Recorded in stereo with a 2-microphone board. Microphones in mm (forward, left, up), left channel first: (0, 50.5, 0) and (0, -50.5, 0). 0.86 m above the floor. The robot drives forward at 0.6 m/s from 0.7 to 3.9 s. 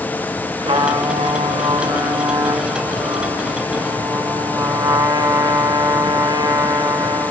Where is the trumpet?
80° right, 2 m; by 7.3 s 50° right (ahead or behind), 2.5 m.